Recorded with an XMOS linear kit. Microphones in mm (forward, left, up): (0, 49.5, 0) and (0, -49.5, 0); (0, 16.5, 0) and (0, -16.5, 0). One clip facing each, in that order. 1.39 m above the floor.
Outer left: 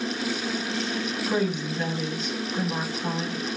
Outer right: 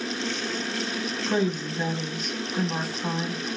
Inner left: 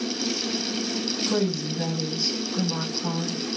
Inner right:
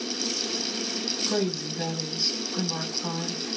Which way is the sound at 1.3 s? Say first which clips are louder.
Outer right 1 dB, inner left 2 dB; 5° right (ahead or behind).